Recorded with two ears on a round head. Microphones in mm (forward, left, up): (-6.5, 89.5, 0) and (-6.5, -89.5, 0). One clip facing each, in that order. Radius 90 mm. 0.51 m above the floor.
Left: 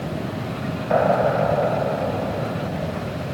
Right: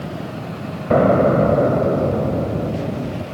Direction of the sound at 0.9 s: 50° right (ahead or behind).